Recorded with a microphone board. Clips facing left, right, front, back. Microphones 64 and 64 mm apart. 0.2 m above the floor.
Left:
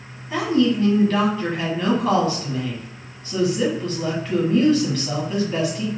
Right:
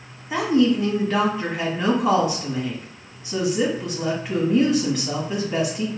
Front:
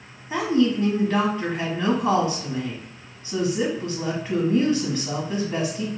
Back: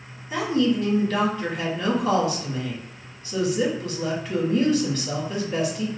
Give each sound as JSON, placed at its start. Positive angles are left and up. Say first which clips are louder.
{"t": 0.3, "sound": "a woman speaking", "louder": "right 1 dB, front 1 dB", "azimuth_deg": -30, "distance_m": 1.4}